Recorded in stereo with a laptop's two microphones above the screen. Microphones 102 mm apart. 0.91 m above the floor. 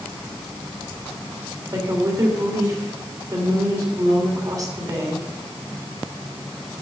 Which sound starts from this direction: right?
A woman speaking, at 1.7 s.